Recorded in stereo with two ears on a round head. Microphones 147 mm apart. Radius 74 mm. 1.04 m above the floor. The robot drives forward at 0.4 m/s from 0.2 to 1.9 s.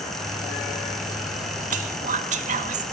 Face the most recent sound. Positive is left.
turn(degrees=-50)  # may be behind; listen again after turning